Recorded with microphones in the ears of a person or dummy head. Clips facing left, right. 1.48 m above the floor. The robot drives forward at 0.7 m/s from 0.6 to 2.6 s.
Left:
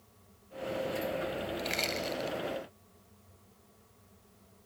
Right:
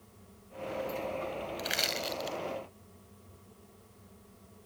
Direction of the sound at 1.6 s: 10° right (ahead or behind).